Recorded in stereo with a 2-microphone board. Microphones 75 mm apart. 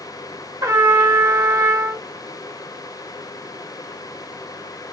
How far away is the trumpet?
About 1.3 m.